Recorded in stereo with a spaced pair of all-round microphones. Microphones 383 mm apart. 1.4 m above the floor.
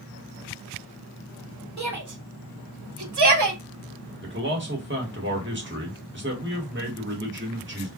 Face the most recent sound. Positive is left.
turn(degrees=-30)  # may be behind; listen again after turning